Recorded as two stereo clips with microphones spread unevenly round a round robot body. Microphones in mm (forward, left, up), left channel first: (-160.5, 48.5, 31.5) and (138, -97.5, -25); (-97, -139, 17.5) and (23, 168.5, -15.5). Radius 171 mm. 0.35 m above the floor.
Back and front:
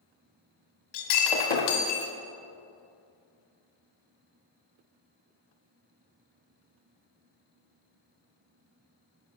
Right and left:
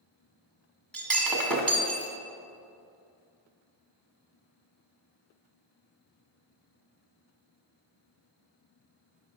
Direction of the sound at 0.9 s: 160° left.